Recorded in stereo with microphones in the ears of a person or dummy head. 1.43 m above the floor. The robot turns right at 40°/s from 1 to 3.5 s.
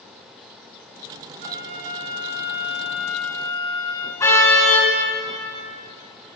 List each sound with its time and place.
1.4 s a flute: 60° right, 4 m; by 4.1 s 25° left, 4 m
4.2 s a car horn: 20° left (ahead or behind), 5 m